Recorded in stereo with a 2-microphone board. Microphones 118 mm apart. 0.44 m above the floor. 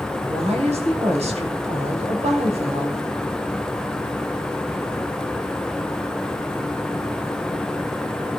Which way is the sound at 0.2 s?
60° right (ahead or behind).